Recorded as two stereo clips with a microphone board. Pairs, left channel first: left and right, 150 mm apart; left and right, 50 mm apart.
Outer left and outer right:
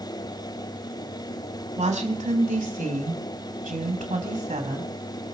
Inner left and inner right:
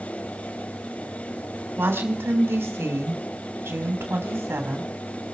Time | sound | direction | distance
1.8 | a woman speaking | 50° right (ahead or behind) | 3 m